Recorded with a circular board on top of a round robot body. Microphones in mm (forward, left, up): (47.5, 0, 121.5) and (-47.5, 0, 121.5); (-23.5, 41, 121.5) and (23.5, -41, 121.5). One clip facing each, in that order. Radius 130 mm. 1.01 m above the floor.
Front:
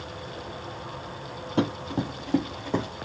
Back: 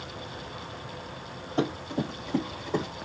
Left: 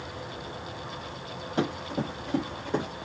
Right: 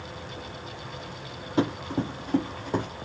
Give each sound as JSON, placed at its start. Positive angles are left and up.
{"t": 1.6, "sound": "running footsteps", "azimuth_deg": 25, "distance_m": 1.5}